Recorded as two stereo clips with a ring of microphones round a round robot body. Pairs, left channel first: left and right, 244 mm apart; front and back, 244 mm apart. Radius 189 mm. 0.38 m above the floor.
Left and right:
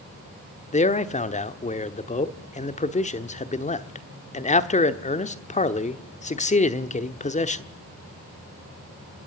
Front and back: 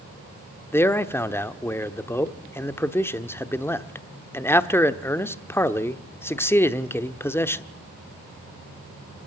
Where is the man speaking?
70° left, 1.1 m.